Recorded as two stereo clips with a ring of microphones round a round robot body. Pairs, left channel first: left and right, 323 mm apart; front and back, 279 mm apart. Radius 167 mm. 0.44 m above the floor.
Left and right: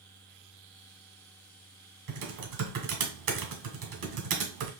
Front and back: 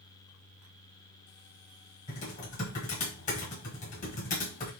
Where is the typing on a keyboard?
65° right, 1.6 m.